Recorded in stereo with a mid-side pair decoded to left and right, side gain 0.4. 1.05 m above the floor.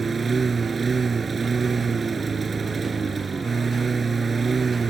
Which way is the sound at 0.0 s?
45° right.